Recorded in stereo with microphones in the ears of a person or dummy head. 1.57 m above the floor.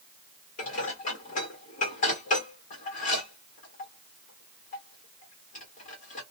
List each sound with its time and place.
0.6 s dishes clattering: 45° left (ahead or behind), 1.2 m